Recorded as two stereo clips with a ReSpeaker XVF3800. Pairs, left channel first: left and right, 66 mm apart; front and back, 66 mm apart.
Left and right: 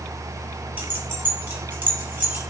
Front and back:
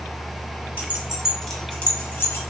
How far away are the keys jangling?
About 0.9 m.